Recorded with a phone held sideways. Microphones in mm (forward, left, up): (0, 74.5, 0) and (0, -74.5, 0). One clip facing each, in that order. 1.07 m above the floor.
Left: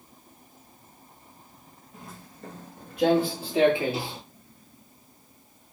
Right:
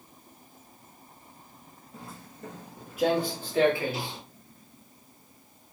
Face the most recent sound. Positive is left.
turn(degrees=30)  # may be behind; listen again after turning